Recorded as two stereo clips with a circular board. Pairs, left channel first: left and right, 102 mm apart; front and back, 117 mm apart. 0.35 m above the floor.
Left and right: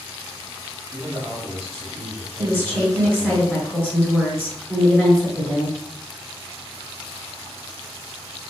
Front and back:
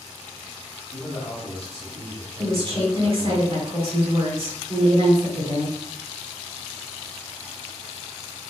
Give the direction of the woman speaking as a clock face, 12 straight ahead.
7 o'clock.